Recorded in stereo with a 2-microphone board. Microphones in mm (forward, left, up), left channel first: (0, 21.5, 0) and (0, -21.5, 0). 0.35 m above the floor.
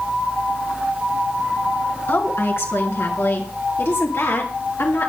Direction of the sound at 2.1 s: 65° left (ahead or behind).